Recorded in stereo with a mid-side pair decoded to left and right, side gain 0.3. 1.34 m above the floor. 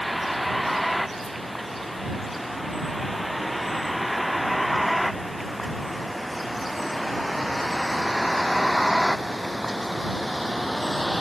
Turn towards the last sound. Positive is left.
turn(degrees=-5)